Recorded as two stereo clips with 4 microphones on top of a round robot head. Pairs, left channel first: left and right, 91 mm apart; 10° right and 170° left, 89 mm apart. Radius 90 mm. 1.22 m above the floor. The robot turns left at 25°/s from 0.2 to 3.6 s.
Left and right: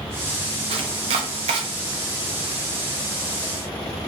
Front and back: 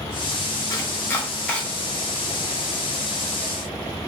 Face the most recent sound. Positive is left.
turn(degrees=-140)